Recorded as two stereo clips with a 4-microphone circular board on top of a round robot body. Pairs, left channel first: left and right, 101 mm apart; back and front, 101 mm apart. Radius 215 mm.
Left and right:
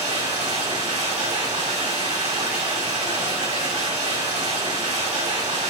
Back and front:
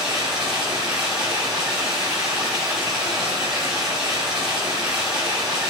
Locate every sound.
0.0 s running water: 85° right, 4 m